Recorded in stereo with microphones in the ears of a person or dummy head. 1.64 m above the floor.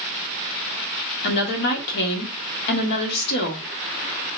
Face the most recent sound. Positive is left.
turn(degrees=60)  # may be behind; listen again after turning